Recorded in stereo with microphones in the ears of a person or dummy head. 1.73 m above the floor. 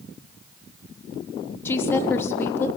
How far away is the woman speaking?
About 3 m.